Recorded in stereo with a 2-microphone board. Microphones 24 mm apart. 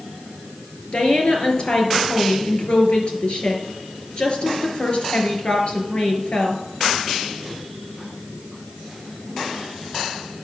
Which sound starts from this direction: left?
A woman speaking, at 0.9 s.